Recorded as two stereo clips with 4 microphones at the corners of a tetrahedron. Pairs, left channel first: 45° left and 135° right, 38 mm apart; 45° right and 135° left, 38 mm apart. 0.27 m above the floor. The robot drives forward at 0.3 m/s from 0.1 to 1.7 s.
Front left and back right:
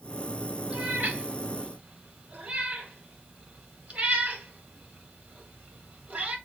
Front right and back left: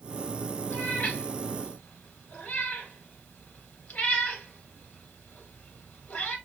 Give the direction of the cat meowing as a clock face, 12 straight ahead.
3 o'clock.